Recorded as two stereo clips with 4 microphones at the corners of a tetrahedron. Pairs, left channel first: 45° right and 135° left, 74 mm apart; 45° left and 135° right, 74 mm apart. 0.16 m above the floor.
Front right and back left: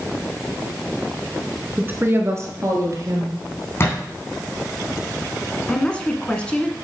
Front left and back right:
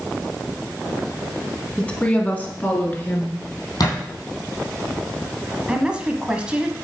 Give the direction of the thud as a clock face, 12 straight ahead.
12 o'clock.